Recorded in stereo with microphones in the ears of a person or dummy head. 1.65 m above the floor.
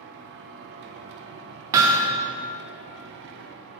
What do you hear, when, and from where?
0.0 s a machine running: 65° right (ahead or behind), 0.7 m
1.7 s hammering: 20° right (ahead or behind), 0.7 m